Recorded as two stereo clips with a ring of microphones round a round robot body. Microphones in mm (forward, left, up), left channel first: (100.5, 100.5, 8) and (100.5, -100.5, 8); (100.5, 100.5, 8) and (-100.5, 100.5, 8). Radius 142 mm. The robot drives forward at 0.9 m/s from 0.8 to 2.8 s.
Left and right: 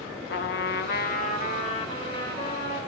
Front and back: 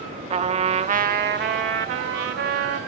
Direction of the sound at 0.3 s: 125° left.